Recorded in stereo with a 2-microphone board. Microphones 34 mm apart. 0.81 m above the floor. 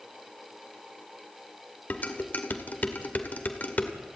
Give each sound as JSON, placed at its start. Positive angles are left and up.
{"t": 1.9, "sound": "dishes clattering", "side_deg": 55, "distance_m": 1.9}